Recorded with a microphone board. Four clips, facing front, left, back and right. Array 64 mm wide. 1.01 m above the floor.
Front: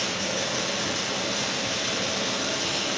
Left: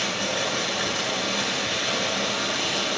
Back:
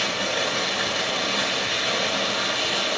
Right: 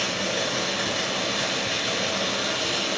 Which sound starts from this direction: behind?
Running water, at 0.0 s.